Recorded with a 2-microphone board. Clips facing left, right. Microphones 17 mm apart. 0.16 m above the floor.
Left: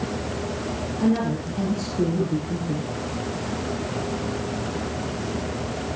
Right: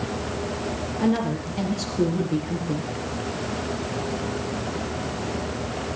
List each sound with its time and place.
1.0 s a woman speaking: 15° right (ahead or behind), 4 m; by 2.9 s 30° right (ahead or behind), 3.5 m